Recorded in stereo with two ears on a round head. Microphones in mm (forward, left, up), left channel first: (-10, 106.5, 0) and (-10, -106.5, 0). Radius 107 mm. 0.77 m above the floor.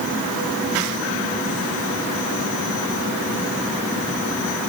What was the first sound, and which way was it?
Only background noise.